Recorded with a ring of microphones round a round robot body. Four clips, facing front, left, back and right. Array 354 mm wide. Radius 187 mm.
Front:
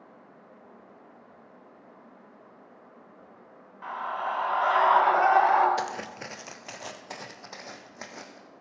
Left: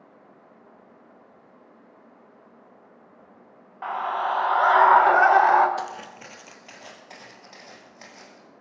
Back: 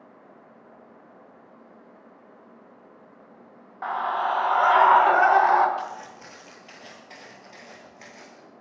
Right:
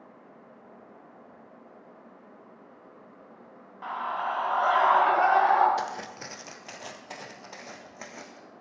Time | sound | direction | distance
3.8 | a scream | 150° left | 1.5 m
5.8 | footsteps | 5° right | 0.7 m